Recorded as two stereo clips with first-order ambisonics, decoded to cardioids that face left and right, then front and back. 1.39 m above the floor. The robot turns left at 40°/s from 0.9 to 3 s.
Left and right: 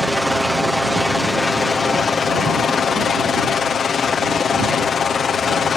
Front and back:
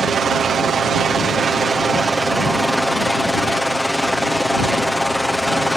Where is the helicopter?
175° left; by 5.8 s 90° left.